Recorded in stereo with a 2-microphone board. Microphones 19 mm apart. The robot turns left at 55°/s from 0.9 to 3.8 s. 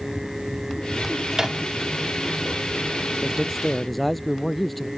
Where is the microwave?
30° right (ahead or behind); by 1.6 s 25° right (ahead or behind).